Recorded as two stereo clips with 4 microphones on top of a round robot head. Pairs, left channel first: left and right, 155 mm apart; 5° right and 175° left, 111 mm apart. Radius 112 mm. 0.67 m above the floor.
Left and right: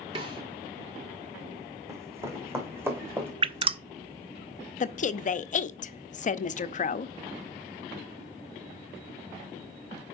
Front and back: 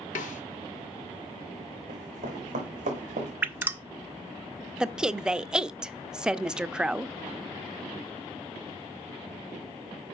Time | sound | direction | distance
0.1 | a snare drum | 25° right | 0.6 m
1.9 | running footsteps | 160° right | 2.0 m
3.4 | dripping | 120° right | 0.6 m
4.8 | a woman speaking | 90° left | 0.7 m